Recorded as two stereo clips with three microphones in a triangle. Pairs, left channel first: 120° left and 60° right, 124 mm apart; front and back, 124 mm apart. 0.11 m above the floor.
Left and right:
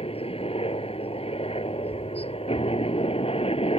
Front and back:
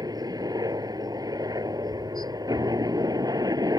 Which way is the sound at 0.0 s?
130° left.